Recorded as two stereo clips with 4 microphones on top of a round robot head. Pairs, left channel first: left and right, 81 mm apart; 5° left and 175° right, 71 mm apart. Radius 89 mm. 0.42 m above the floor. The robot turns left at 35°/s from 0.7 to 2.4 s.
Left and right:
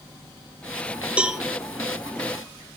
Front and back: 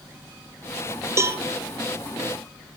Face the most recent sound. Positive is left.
turn(degrees=160)